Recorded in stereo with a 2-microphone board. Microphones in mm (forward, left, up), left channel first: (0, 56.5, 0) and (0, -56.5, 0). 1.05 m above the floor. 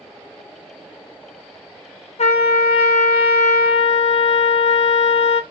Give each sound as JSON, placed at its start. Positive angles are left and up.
{"t": 2.2, "sound": "a trumpet", "side_deg": 75, "distance_m": 0.6}